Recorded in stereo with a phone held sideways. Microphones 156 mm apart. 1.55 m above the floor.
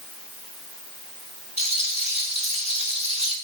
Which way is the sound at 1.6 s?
45° right (ahead or behind).